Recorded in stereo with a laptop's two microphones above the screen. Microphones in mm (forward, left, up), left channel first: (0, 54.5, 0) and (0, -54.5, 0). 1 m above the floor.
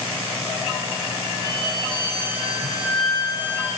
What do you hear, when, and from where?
1.4 s a violin: 40° left (ahead or behind), 1.3 m